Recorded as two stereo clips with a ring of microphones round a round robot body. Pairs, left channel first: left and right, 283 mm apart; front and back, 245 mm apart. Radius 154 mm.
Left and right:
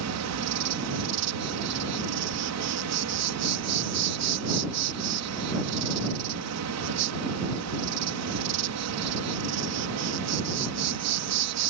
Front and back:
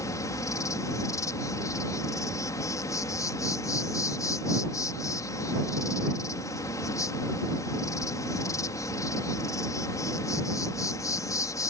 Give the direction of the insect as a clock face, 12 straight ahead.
3 o'clock.